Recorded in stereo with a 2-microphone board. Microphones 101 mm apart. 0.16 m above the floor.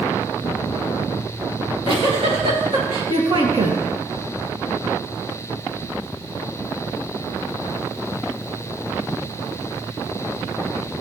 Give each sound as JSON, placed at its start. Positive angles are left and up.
{"t": 1.6, "sound": "a giggle", "side_deg": -65, "distance_m": 3.0}